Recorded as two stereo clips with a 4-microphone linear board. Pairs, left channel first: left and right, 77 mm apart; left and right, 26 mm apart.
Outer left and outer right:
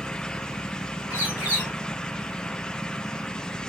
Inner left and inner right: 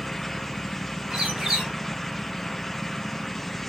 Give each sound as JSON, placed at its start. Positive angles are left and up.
{"t": 1.1, "sound": "a bird", "side_deg": -25, "distance_m": 3.0}